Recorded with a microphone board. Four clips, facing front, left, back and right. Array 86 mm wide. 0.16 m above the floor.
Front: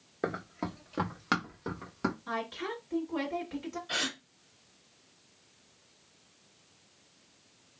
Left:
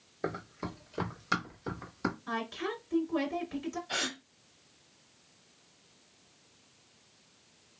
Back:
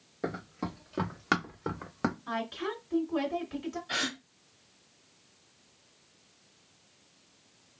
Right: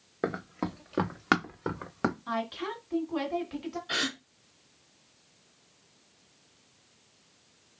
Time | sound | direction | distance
0.2 | running footsteps | 70° right | 1.2 m
2.3 | a woman speaking | 95° right | 1.6 m
3.9 | a gasp | 85° right | 1.9 m